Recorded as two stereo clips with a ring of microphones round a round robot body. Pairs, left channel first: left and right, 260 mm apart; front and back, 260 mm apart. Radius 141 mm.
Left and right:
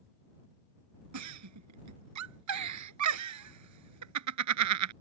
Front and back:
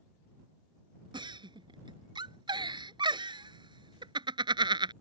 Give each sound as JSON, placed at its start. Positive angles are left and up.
{"t": 1.1, "sound": "a giggle", "azimuth_deg": -105}